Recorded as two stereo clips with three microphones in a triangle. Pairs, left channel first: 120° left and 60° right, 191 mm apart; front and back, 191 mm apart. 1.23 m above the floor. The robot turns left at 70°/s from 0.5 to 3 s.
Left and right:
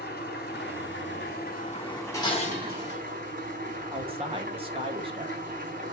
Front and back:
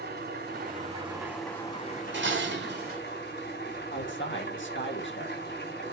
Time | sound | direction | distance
0.0 | an engine running | 155° left | 4.5 m
2.1 | dishes clattering | 165° right | 1.8 m
3.9 | a man speaking | straight ahead | 1.6 m